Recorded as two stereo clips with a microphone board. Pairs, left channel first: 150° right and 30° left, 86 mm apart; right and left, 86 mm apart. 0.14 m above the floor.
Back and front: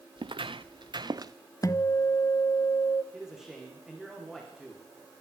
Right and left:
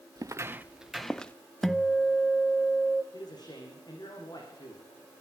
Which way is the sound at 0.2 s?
45° left.